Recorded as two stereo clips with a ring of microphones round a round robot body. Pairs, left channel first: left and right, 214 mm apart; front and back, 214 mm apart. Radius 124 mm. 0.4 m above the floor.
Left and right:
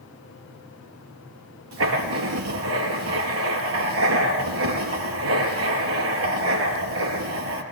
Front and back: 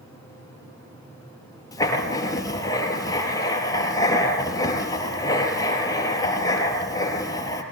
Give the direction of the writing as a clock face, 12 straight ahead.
2 o'clock.